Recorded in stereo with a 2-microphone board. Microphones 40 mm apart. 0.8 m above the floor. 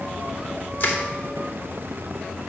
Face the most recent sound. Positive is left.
turn(degrees=50)  # may be behind; listen again after turning